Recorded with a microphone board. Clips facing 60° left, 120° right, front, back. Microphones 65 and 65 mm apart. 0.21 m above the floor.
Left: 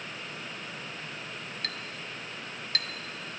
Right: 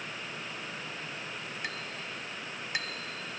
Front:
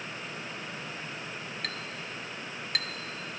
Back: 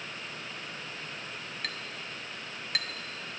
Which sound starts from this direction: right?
A clink, at 1.6 s.